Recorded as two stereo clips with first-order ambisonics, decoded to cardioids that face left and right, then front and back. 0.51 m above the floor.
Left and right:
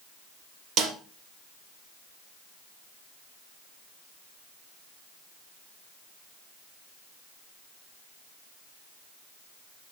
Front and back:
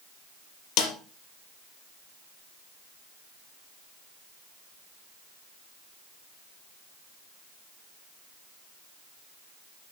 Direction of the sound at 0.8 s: 35° right.